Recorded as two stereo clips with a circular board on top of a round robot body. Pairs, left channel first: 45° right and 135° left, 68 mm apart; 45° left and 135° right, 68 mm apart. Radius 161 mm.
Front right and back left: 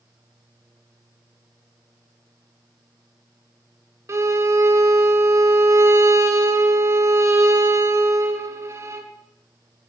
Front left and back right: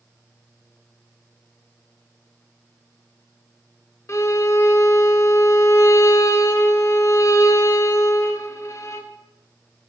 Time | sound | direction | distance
4.1 | a violin | 90° left | 1.0 m